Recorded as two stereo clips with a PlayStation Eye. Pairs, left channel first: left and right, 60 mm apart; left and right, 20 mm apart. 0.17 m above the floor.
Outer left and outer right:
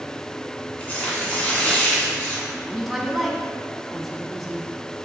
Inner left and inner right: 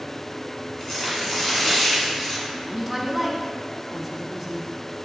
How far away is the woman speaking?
About 1.1 m.